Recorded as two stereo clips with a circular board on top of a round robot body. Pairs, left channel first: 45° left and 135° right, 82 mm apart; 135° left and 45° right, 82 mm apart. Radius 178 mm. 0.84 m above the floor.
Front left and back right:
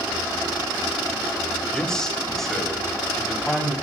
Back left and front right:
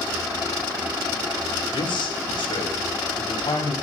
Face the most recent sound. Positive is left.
turn(degrees=135)